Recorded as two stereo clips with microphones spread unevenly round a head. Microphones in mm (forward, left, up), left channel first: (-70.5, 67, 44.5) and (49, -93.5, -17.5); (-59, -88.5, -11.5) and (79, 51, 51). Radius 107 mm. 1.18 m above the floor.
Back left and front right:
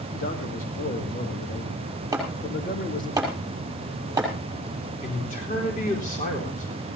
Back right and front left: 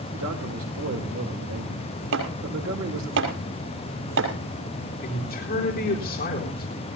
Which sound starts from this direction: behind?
A man speaking, at 5.0 s.